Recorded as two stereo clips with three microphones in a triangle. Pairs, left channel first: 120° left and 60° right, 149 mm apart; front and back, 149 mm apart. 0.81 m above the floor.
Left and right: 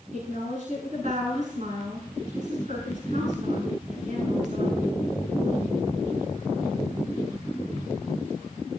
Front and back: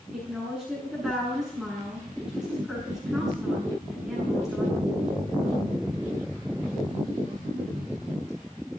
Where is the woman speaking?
95° right, 7.5 m.